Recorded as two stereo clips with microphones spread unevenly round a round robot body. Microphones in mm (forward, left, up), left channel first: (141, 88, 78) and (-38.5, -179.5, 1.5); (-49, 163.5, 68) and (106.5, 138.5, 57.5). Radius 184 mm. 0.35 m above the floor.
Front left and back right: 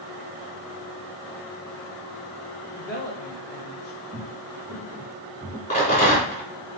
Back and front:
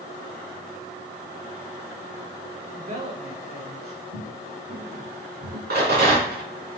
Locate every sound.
2.8 s a woman speaking: 10° right, 1.3 m; by 4.0 s 15° right, 2.0 m
4.1 s footsteps: 50° right, 2 m; by 5.6 s 20° right, 1.4 m
5.7 s a rattle: 15° right, 4 m